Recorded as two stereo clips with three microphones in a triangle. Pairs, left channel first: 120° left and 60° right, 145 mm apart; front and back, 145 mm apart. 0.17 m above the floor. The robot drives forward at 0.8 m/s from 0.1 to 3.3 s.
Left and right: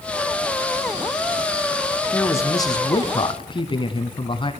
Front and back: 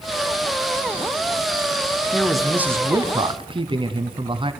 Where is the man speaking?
65° left, 1.1 m; by 4.5 s 150° left, 1.3 m.